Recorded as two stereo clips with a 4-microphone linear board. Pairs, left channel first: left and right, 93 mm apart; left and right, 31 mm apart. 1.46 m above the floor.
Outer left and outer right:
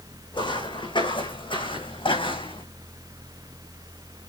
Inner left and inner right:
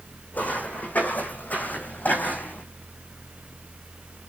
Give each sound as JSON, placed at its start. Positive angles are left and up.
{"t": 0.3, "sound": "footsteps", "side_deg": 60, "distance_m": 5.5}